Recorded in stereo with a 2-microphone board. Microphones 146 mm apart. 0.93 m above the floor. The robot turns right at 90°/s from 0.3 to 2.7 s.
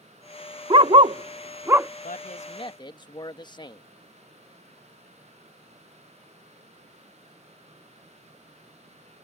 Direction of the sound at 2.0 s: 85° left.